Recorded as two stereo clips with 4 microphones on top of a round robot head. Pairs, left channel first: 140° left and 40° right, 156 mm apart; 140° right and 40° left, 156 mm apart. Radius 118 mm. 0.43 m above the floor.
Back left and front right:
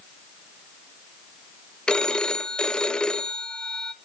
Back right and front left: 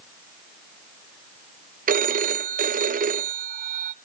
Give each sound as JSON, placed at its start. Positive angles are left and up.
{"t": 1.9, "sound": "a phone ringing", "azimuth_deg": 60, "distance_m": 0.8}